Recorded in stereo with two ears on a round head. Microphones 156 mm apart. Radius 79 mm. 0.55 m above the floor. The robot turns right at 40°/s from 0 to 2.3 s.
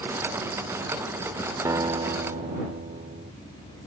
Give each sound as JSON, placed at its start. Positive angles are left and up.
{"t": 1.6, "sound": "a guitar", "side_deg": -15}